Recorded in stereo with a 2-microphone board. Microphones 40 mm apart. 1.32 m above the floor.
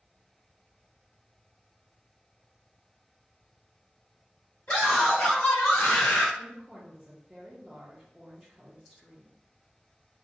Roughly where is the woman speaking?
Centre.